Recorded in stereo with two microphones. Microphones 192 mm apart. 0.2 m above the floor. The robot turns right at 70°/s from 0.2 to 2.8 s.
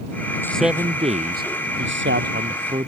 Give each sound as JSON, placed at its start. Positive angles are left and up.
{"t": 0.4, "sound": "a man speaking", "azimuth_deg": 165}